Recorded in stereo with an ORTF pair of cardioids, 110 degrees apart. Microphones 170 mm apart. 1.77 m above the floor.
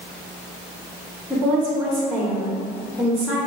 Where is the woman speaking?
10° right, 0.7 m.